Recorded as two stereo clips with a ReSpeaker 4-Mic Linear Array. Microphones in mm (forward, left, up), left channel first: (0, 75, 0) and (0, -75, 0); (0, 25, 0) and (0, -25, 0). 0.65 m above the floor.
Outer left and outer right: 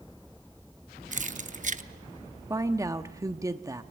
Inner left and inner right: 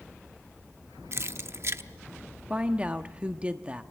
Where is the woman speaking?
20° right (ahead or behind), 1.0 m.